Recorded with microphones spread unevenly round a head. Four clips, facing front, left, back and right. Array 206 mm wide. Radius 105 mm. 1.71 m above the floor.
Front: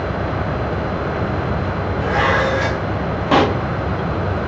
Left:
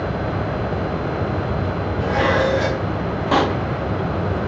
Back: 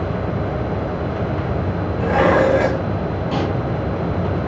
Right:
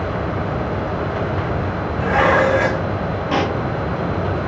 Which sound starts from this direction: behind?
Dishes clattering, at 2.0 s.